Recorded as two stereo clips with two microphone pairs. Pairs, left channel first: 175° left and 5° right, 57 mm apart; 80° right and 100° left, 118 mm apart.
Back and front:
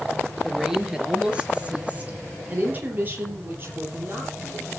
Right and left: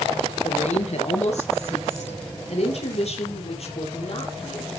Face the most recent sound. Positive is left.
turn(degrees=-50)